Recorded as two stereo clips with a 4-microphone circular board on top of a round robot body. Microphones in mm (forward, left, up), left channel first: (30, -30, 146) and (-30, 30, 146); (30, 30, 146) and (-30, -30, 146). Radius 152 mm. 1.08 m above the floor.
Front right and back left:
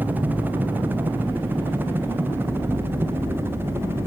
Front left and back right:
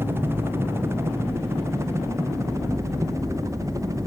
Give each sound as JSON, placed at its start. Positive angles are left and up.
{"t": 0.0, "sound": "a helicopter", "azimuth_deg": -170}